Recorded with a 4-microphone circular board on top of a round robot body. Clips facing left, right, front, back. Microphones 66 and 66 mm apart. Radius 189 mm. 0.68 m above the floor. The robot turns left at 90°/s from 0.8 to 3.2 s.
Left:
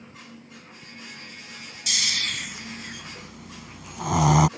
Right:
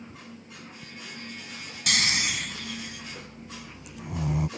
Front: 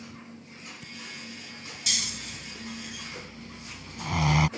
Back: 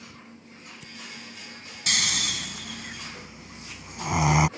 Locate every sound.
1.9 s snoring: 130° right; by 4.5 s 105° left